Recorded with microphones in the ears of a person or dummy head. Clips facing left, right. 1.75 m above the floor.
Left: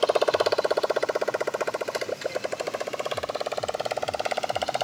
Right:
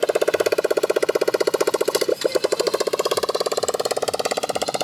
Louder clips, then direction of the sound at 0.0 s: Right 3 dB; 20° right (ahead or behind).